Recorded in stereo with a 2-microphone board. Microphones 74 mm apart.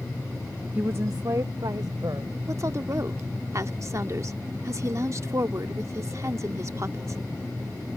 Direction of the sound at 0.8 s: 20° right (ahead or behind).